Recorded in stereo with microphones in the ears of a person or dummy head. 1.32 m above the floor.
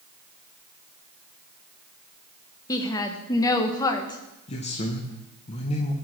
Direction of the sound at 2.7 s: 30° left (ahead or behind).